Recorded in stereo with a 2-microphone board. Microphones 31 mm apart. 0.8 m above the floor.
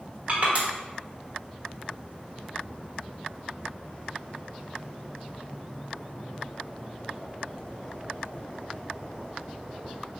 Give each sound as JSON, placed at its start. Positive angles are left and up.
{"t": 0.3, "sound": "crushing", "side_deg": -40, "distance_m": 1.2}